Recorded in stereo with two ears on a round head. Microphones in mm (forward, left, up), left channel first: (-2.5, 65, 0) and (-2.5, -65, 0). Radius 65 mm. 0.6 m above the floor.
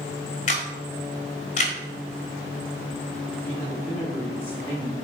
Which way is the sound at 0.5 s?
50° left (ahead or behind).